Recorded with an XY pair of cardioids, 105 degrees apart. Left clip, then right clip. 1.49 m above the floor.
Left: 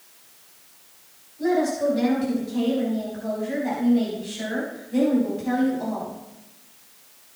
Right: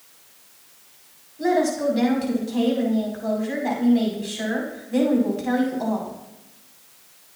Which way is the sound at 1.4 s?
40° right.